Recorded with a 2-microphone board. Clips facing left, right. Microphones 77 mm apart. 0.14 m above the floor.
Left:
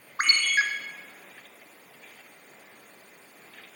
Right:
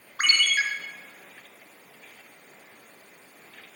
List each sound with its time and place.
0.2 s a ringtone: 30° left (ahead or behind), 0.8 m